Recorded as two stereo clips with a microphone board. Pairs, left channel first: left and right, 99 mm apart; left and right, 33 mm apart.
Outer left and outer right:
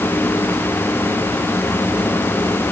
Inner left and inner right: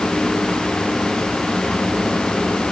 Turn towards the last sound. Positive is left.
No sound to turn to.